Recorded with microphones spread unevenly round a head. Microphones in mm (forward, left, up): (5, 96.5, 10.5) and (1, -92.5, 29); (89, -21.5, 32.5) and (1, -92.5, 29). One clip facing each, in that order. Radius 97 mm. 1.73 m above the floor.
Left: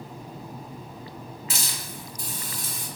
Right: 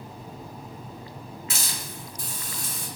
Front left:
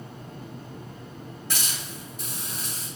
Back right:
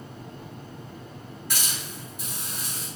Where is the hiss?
110° left, 1.6 m.